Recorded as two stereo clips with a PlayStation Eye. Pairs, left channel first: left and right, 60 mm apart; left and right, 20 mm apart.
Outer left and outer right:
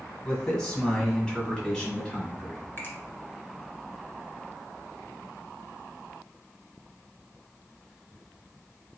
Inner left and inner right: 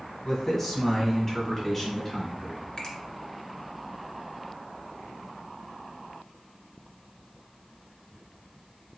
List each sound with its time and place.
0.2 s a man speaking: 10° left (ahead or behind), 1.6 m; by 2.6 s 15° left (ahead or behind), 1.8 m
2.8 s a finger snap: 40° left (ahead or behind), 1.5 m